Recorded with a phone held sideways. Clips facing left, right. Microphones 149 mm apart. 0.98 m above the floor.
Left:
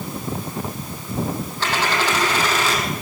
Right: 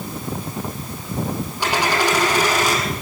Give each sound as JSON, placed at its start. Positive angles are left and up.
{"t": 1.6, "sound": "a dropped coin", "side_deg": -15, "distance_m": 8.0}